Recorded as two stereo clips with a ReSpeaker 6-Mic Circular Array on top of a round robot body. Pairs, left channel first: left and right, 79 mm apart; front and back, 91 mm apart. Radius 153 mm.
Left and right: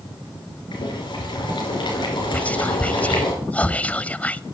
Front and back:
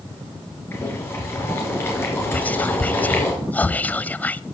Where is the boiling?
65° left, 3 m.